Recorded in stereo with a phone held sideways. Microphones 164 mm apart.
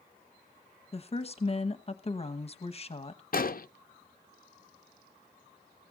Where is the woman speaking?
40° left (ahead or behind), 1.0 m.